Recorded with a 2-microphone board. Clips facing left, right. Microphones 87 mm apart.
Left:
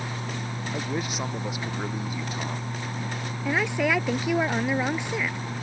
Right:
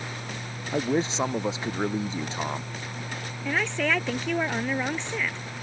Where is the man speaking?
25° right (ahead or behind).